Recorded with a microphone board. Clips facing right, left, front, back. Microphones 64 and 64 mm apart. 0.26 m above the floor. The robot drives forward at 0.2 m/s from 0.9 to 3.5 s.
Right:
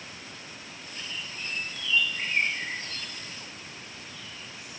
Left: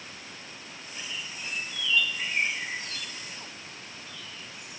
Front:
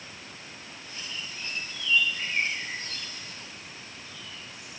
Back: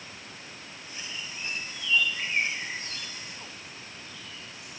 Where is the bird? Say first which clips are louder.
Even, back 1 dB; 120° right, 3 m; by 4.8 s 130° right, 3.5 m.